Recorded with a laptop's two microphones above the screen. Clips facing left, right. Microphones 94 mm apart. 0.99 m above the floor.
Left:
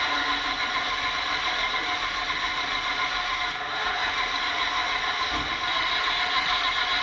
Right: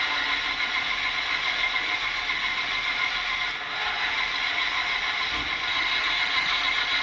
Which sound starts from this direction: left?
An engine running, at 0.0 s.